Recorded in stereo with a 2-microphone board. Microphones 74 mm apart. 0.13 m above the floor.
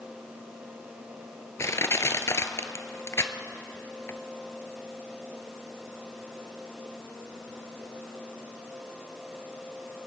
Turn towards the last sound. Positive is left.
turn(degrees=45)  # may be behind; listen again after turning